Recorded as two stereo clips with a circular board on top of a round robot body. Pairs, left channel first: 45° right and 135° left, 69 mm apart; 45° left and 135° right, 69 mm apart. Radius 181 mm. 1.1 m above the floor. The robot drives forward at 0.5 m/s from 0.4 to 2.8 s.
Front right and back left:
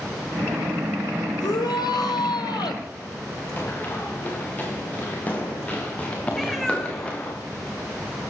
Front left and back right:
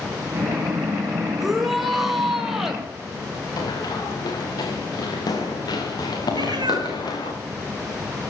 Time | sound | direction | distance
1.4 | a shout | 45° right | 6 m
3.6 | running footsteps | 20° left | 6 m
6.3 | a cat meowing | 135° right | 4 m